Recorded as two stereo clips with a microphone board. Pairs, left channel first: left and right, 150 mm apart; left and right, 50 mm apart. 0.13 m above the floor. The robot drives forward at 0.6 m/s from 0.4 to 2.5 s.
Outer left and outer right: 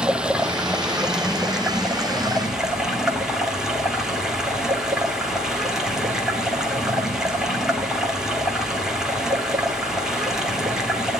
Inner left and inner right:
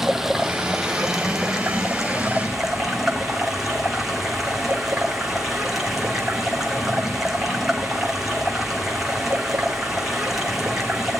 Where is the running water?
5° right (ahead or behind), 1.4 m.